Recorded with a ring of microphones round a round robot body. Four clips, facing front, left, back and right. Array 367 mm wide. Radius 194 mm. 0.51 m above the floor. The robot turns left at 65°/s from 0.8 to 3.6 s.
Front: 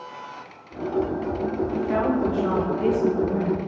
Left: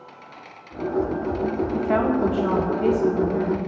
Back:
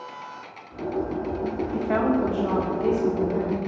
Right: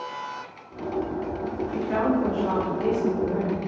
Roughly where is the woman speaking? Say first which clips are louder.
Left 1 dB, back 2 dB; behind left.